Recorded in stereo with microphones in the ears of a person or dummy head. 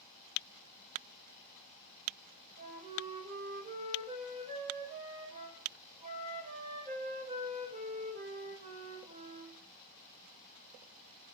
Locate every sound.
2.6 s a flute: 40° right (ahead or behind), 6 m